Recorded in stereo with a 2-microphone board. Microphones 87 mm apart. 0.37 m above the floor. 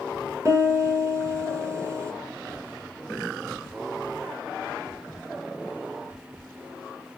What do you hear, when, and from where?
0.5 s a piano: 35° right (ahead or behind), 1.9 m